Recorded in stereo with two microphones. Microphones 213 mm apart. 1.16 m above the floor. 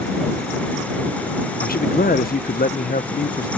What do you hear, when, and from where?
1.6 s a man speaking: 45° left (ahead or behind)